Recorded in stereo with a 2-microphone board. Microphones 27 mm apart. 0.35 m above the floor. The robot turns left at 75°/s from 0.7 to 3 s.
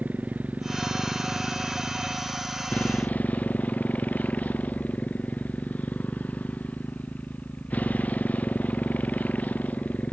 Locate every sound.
0.0 s a motorcycle: 105° right; by 10.1 s 85° left